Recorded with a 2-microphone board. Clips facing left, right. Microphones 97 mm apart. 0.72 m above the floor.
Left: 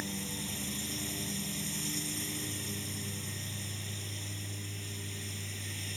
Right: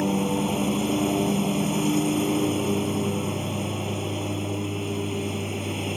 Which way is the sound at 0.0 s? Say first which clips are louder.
Right 17 dB; 60° right (ahead or behind).